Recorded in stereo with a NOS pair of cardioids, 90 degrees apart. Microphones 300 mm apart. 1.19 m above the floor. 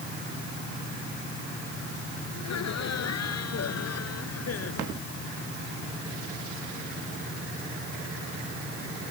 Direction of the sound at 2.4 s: 60° left.